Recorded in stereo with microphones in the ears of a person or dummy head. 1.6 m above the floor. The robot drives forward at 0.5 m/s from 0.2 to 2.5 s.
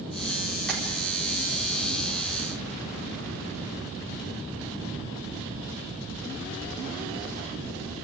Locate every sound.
0.7 s tapping: 5° left (ahead or behind), 5 m